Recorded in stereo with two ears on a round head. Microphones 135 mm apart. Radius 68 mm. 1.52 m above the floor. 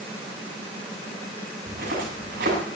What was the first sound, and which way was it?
Footsteps, 70° right (ahead or behind).